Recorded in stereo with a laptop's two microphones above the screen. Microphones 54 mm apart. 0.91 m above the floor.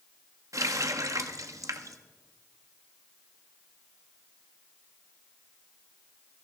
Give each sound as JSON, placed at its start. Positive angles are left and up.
{"t": 0.5, "sound": "a running tap", "side_deg": -75, "distance_m": 0.9}